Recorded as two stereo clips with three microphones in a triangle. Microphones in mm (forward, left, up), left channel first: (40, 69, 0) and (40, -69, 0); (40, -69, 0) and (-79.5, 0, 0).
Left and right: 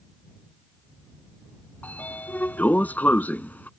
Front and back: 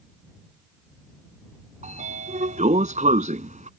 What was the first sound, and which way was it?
A sliding door, 165° left.